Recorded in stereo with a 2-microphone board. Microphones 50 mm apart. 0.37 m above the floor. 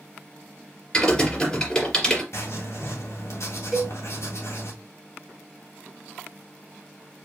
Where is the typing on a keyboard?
15° left (ahead or behind), 2.5 m.